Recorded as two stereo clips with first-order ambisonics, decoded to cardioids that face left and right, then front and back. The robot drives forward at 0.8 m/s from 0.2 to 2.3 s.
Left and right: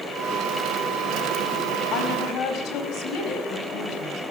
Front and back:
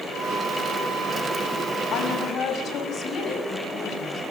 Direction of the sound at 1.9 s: 50° left.